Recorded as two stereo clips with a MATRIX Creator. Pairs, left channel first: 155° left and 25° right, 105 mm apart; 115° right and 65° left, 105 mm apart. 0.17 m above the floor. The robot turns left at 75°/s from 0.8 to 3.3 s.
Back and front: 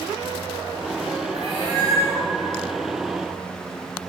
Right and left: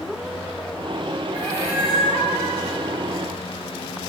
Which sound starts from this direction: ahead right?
A cat meowing, at 1.3 s.